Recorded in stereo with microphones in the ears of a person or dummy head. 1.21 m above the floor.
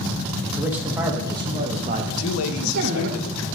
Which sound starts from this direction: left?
A man speaking, at 2.1 s.